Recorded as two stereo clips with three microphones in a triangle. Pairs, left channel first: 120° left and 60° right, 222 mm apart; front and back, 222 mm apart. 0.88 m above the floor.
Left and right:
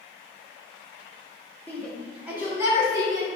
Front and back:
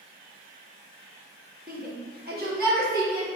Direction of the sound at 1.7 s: 165° right.